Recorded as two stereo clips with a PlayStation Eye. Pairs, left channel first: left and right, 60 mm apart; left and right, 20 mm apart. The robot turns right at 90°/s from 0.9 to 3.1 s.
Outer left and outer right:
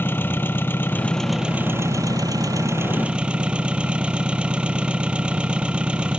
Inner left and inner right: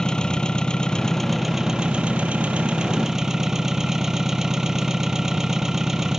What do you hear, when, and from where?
0.0 s an engine running: 145° left; by 6.2 s 20° right